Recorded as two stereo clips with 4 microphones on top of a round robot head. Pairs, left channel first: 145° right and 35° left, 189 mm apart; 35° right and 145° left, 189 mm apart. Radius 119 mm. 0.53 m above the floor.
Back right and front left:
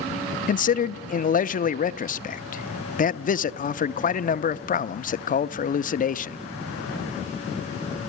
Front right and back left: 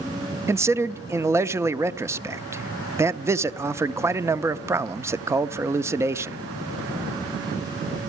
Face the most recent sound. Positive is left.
turn(degrees=-145)